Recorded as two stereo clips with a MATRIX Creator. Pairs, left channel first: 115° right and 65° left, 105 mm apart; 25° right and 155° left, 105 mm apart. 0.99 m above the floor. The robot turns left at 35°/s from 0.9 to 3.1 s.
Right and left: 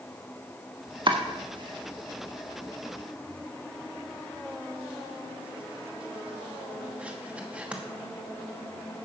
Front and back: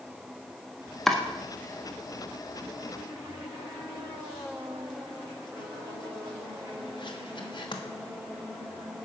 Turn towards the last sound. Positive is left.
turn(degrees=-5)